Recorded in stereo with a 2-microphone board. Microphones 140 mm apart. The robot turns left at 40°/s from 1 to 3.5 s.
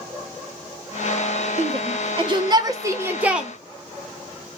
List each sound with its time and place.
1.6 s a shout: 45° right (ahead or behind), 0.6 m; by 3.5 s 5° right (ahead or behind), 0.6 m